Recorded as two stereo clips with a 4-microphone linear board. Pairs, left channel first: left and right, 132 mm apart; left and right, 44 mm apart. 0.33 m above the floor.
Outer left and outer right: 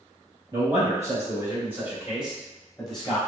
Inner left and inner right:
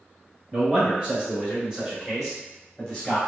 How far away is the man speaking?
About 1.5 m.